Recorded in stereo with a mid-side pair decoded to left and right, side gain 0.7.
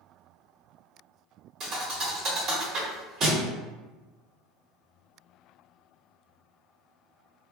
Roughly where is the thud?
Ahead right.